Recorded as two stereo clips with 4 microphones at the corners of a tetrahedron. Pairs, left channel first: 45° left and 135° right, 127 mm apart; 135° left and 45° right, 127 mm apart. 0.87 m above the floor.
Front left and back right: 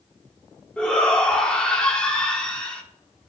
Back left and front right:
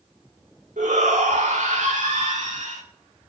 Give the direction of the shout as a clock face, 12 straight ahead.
1 o'clock.